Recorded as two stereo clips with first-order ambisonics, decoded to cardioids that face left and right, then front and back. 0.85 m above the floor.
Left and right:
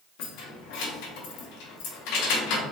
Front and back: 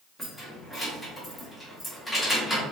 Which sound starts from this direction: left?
Keys jangling, at 0.2 s.